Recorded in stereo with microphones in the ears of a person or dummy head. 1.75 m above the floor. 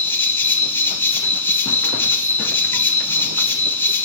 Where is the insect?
10° left (ahead or behind), 1.4 m.